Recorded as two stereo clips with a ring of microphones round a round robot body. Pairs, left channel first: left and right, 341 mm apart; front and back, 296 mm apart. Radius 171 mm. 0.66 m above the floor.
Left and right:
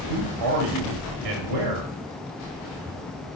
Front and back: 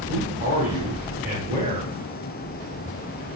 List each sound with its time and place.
0.1 s a man speaking: 110° right, 1.1 m